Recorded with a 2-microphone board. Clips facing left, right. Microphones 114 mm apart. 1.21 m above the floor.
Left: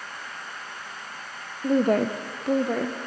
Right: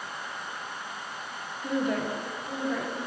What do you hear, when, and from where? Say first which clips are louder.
1.6 s a woman speaking: left 7 dB; 30° left (ahead or behind), 0.6 m; by 3.0 s 55° left (ahead or behind), 1.0 m